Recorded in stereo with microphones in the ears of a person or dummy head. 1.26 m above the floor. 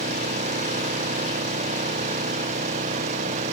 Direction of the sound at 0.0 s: 40° right (ahead or behind).